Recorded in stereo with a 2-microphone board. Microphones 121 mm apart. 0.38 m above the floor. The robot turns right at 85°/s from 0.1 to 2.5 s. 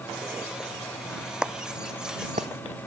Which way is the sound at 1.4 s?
5° right (ahead or behind).